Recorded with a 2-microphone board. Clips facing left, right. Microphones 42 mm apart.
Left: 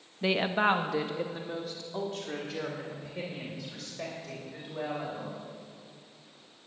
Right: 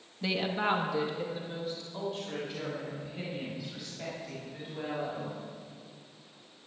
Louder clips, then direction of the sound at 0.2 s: Left 4 dB; 20° left (ahead or behind).